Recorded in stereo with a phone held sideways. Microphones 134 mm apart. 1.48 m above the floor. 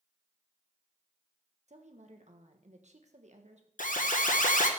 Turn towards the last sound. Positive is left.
turn(degrees=75)  # may be behind; listen again after turning